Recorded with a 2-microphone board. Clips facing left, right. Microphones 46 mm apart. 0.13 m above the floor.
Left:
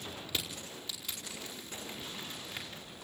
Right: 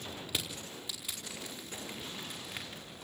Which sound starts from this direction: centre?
Crushing, at 0.3 s.